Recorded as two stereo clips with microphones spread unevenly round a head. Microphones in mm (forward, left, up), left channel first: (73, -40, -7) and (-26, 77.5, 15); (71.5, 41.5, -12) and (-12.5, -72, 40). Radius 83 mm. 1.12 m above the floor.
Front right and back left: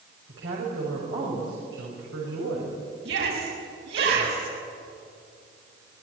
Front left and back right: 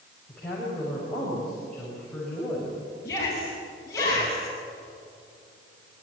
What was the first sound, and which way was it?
A woman speaking, 140° left.